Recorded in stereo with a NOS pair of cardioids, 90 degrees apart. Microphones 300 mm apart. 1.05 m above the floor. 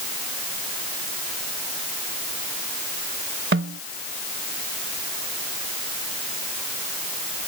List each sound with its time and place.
3.5 s a snare drum: 40° right